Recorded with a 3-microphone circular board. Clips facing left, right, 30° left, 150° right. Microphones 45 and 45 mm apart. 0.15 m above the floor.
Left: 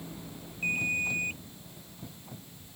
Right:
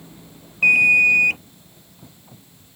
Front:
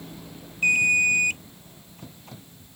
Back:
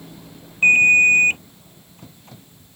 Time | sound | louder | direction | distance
0.6 | an alarm | right 16 dB, back 7 dB | 95° right | ?